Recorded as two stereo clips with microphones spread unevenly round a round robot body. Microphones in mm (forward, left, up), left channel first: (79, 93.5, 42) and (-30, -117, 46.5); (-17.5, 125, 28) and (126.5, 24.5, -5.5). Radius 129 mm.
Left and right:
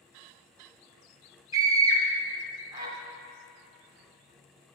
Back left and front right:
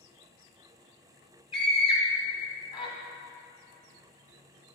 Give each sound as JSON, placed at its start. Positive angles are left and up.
{"t": 1.5, "sound": "a scream", "azimuth_deg": -160, "distance_m": 1.2}